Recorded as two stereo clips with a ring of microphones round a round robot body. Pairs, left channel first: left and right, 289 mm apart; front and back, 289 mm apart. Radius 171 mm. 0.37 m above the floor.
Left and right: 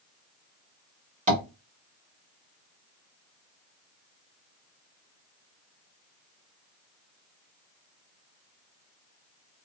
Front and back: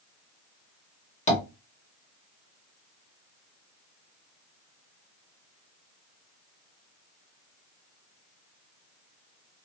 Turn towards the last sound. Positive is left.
turn(degrees=-45)